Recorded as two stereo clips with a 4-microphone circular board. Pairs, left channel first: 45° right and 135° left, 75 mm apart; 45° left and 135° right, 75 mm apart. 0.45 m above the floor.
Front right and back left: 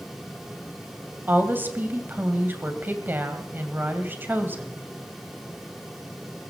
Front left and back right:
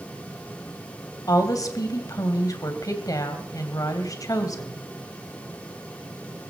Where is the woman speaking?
75° left, 2.5 m.